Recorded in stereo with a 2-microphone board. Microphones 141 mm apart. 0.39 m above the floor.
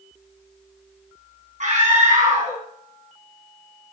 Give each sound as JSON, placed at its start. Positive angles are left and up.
{"t": 1.6, "sound": "a scream", "side_deg": -60, "distance_m": 3.0}